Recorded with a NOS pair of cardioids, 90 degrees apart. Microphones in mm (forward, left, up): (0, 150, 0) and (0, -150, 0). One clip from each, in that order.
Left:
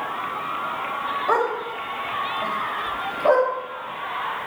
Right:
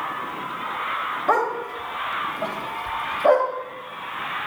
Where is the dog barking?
20° right, 3.5 m.